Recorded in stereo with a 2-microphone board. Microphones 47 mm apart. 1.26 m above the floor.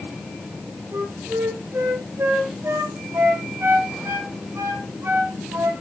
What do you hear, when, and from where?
0.9 s a flute: 80° right, 4.5 m